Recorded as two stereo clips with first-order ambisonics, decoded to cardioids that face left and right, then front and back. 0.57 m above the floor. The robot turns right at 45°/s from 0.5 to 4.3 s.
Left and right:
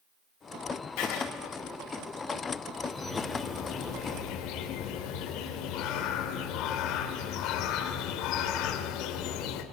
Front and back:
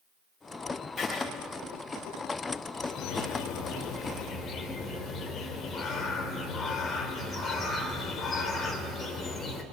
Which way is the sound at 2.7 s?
10° right.